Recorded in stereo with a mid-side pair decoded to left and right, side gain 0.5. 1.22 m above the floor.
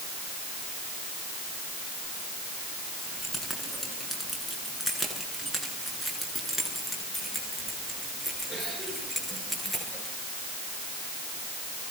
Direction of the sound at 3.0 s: 10° left.